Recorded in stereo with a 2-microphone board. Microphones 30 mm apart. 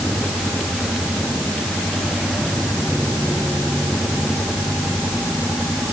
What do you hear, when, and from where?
Only background noise.